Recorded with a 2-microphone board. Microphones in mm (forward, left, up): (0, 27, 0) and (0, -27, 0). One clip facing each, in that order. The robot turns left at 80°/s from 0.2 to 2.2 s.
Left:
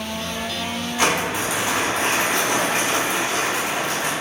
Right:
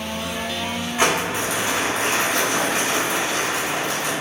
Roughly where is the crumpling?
Behind right.